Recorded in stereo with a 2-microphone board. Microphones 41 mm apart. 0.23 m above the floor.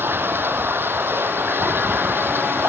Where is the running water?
60° right (ahead or behind).